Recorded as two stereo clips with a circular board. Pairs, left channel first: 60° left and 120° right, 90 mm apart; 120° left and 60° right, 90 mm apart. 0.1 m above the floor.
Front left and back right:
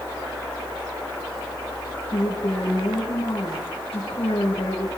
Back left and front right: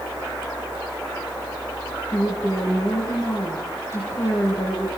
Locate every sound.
2.1 s a woman speaking: 65° left, 9.5 m